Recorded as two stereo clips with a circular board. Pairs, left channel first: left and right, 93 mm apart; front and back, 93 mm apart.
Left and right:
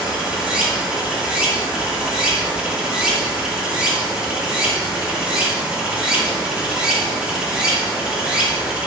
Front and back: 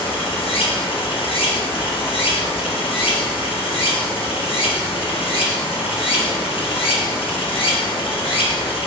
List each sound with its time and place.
0.0 s running water: 10° right, 1.0 m